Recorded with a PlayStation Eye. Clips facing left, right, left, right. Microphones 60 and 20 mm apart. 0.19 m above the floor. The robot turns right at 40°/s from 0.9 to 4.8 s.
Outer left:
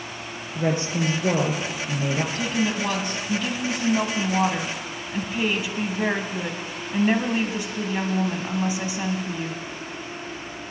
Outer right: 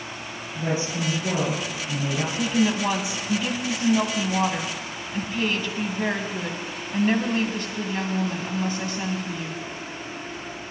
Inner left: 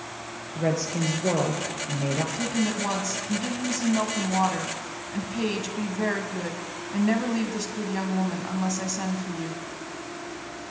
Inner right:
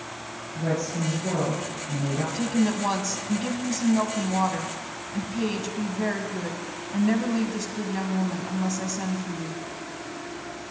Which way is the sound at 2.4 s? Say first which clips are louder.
Outer right 2 dB, inner right 2 dB; 15° right (ahead or behind).